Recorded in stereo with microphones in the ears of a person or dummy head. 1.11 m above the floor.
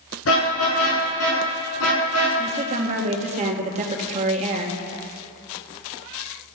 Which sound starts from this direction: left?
A car horn, at 0.2 s.